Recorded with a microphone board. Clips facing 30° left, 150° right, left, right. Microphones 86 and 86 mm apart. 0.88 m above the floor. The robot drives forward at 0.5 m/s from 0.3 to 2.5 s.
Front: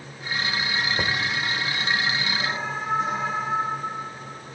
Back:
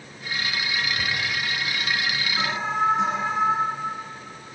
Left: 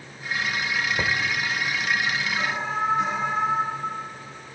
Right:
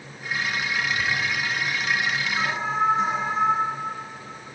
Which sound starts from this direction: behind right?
An alarm, at 2.4 s.